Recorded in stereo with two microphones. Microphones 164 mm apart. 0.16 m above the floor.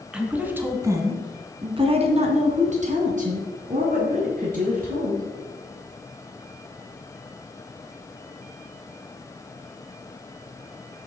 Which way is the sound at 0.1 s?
5° right (ahead or behind).